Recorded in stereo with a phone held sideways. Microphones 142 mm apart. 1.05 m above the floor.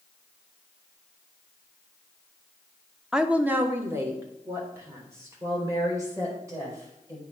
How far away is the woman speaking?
About 0.6 m.